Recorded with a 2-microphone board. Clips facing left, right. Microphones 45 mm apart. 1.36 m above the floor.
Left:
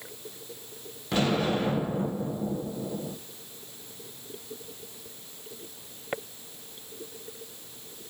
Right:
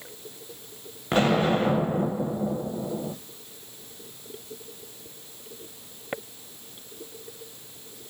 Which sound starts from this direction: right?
An explosion, at 1.1 s.